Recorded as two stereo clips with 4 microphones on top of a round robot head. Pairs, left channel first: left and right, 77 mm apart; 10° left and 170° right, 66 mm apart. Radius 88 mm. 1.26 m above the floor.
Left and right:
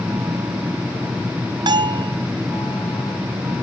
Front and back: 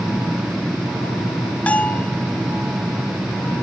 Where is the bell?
65° right.